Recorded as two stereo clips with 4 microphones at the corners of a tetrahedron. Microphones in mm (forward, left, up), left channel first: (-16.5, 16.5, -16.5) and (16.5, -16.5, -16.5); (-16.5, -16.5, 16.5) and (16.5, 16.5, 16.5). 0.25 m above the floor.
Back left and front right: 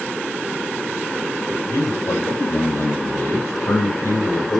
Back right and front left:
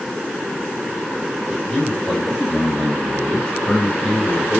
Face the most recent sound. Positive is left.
turn(degrees=155)